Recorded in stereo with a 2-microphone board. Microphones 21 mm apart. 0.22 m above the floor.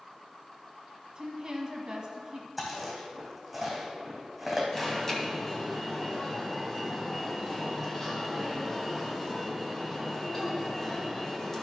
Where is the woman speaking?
35° right (ahead or behind), 2.0 m.